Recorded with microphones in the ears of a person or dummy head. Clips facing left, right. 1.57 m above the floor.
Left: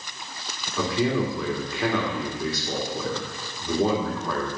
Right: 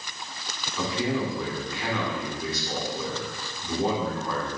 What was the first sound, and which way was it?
A man speaking, 60° left (ahead or behind).